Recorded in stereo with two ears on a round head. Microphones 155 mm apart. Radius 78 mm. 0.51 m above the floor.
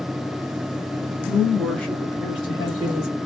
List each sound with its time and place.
1.3 s a woman speaking: 15° right (ahead or behind), 1.1 m; by 3.2 s 45° left (ahead or behind), 1.7 m